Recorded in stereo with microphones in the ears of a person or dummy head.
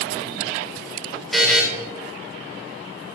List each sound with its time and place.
1.3 s a buzzer: centre (ahead or behind), 2.5 m